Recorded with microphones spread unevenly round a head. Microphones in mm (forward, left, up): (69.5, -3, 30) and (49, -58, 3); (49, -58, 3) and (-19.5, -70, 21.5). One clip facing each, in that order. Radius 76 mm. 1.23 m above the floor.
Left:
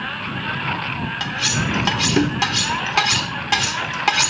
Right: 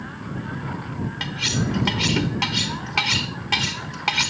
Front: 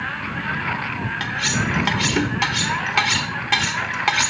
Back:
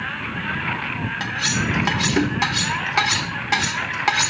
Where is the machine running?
95° left.